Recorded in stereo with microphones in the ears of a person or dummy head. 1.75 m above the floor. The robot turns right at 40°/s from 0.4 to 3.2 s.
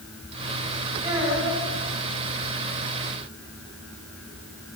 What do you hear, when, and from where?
1.0 s a child speaking: 40° right (ahead or behind), 4.5 m; by 1.6 s 15° right (ahead or behind), 4.5 m